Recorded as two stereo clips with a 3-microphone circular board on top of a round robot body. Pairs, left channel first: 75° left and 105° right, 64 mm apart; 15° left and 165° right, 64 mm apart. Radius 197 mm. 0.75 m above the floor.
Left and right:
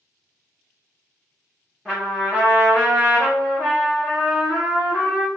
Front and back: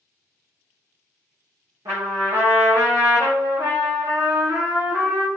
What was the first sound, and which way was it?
A trumpet, 175° left.